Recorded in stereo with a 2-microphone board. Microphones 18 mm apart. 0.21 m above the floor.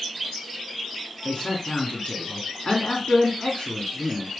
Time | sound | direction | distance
1.2 | a man speaking | 45° left (ahead or behind) | 1.9 m